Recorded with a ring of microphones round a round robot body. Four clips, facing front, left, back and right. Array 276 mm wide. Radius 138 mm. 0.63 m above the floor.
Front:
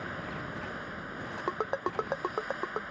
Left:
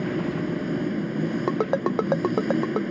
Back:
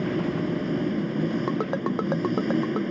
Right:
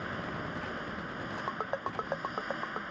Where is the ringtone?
90° left.